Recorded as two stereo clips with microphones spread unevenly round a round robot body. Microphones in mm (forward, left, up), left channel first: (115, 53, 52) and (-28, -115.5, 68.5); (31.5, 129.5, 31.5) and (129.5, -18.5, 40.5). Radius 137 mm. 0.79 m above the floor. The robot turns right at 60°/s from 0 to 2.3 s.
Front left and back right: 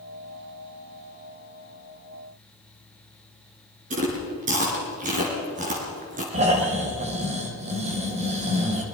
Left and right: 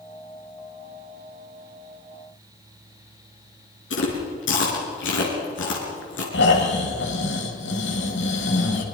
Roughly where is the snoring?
Behind.